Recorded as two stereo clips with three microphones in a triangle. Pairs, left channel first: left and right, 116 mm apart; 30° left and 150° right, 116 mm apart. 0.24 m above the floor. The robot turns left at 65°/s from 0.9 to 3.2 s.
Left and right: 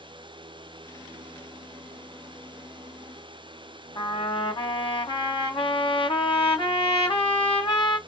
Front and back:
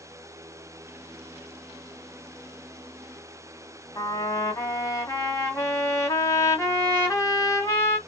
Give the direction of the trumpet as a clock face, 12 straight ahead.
9 o'clock.